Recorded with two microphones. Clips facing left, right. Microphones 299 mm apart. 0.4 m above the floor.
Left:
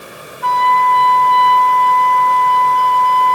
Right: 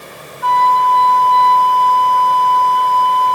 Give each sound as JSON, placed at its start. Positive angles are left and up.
{"t": 0.4, "sound": "a flute", "side_deg": 35, "distance_m": 1.5}